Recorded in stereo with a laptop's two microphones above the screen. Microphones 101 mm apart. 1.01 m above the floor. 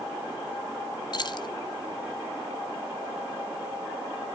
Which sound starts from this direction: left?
Keys jangling, at 1.1 s.